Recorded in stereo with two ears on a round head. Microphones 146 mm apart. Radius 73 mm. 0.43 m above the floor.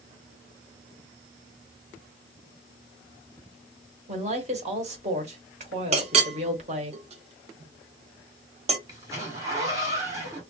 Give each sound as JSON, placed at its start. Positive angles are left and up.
{"t": 4.1, "sound": "a woman speaking", "side_deg": -40, "distance_m": 1.2}
{"t": 5.9, "sound": "a clink", "side_deg": -40, "distance_m": 0.7}
{"t": 8.9, "sound": "a zipper", "side_deg": -20, "distance_m": 1.4}